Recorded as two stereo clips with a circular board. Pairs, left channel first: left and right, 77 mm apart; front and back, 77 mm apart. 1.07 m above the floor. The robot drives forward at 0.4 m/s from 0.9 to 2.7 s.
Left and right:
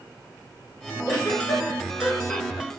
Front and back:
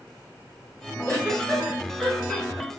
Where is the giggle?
125° left, 1.1 m; by 2.8 s 145° left, 1.6 m.